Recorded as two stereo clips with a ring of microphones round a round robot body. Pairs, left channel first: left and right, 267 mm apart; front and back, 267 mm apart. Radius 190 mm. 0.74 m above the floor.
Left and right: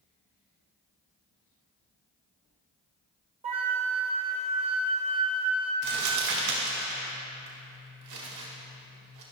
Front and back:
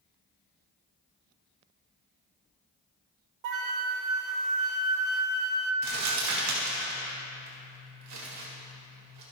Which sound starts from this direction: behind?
A flute, at 3.4 s.